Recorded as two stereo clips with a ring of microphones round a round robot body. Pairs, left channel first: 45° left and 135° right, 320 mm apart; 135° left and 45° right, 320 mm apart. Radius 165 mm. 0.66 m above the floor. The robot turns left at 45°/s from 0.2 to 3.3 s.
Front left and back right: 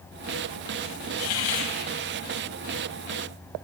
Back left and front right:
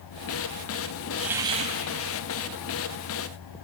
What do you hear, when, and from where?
1.2 s a hiss: 45° left, 4.5 m; by 1.7 s 20° left, 4.5 m